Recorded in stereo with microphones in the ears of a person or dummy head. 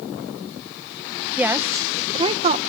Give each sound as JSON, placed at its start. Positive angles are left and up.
{"t": 1.4, "sound": "a woman speaking", "side_deg": -5}